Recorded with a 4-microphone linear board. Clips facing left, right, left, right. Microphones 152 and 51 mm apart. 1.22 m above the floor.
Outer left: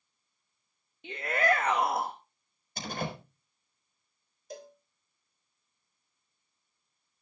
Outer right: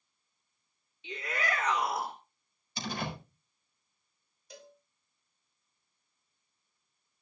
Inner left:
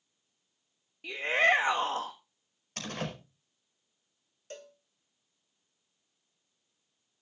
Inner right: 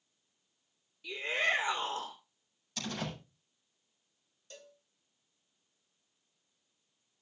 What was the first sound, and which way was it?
A shout, 55° left (ahead or behind).